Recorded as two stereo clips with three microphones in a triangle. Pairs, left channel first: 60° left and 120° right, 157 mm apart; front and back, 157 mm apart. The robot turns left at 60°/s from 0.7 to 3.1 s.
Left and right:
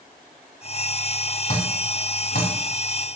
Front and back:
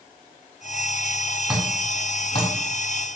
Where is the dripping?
100° left, 3.5 m; by 2.5 s 35° left, 3.5 m.